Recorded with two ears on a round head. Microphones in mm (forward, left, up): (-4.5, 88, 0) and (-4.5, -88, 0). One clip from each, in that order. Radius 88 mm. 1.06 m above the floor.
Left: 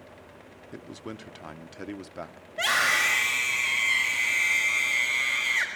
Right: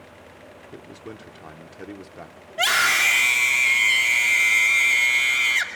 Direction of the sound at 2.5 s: 15° right (ahead or behind).